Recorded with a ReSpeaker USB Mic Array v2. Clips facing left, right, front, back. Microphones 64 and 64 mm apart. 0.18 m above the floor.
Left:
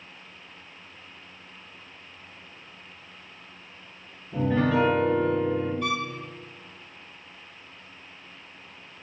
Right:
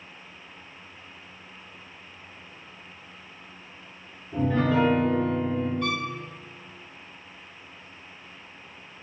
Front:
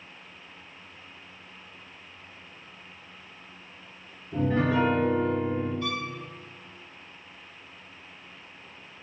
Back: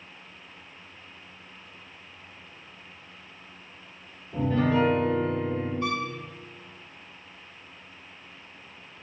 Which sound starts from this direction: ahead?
A piano, at 4.3 s.